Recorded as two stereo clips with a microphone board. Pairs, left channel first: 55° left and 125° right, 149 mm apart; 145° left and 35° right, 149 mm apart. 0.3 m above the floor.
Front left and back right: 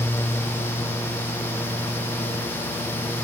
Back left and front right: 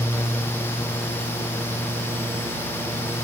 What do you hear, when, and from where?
Only background noise.